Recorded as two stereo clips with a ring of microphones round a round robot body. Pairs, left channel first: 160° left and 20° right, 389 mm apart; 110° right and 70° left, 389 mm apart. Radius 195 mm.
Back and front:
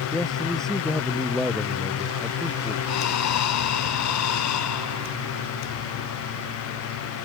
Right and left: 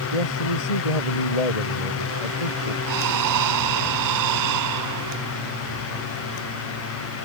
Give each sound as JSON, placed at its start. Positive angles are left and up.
{"t": 0.1, "sound": "a man speaking", "azimuth_deg": -115}
{"t": 2.9, "sound": "breathing", "azimuth_deg": 110}